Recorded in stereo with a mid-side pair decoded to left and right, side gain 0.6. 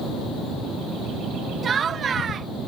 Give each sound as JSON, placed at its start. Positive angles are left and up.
{"t": 1.6, "sound": "laughter", "azimuth_deg": -40}